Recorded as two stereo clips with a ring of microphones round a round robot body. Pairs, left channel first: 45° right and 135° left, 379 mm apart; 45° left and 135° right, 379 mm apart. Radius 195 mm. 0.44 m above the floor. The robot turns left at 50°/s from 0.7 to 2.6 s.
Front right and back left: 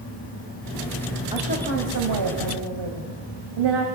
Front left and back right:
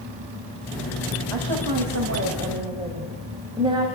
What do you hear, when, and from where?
1.3 s a woman speaking: 150° right, 3 m; by 3.9 s 150° left, 3 m